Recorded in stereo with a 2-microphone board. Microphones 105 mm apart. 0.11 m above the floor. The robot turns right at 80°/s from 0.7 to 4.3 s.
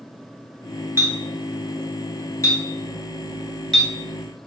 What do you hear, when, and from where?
1.0 s a clink: 25° right (ahead or behind), 0.9 m; by 3.9 s centre (ahead or behind), 0.9 m